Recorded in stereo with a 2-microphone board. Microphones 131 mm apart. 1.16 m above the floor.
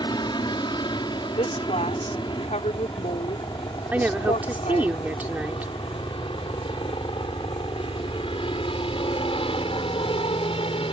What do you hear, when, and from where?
0.0 s a helicopter: 35° left (ahead or behind); by 10.9 s 45° left (ahead or behind)
1.4 s a woman speaking: 70° left (ahead or behind)
3.9 s a woman speaking: 15° right (ahead or behind)